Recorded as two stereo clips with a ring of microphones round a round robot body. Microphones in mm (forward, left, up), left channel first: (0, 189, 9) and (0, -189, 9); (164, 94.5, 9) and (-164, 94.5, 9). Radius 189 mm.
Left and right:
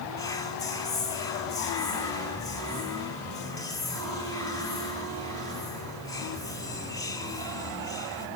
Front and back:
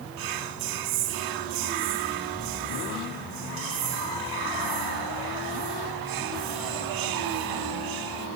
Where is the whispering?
170° left, 1.6 m.